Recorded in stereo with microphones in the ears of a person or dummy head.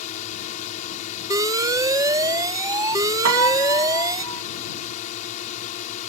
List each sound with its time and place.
0.0 s a drone: 50° left (ahead or behind)
1.3 s an alarm: 15° right (ahead or behind)
3.2 s a piano: 80° right